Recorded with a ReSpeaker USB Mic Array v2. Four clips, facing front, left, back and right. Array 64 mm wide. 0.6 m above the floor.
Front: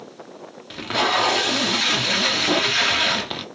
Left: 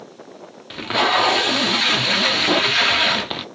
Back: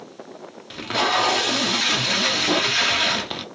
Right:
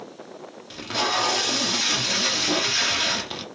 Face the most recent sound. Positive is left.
turn(degrees=85)